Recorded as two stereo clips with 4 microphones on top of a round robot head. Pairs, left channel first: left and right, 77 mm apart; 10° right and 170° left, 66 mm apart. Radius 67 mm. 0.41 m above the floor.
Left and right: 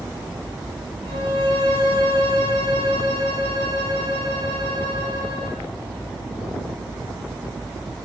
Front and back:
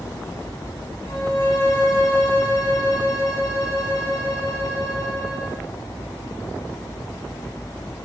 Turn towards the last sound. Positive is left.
turn(degrees=-55)